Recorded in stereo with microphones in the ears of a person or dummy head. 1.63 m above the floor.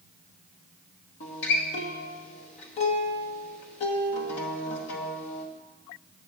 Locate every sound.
1.2 s a guitar: 35° left (ahead or behind), 1.1 m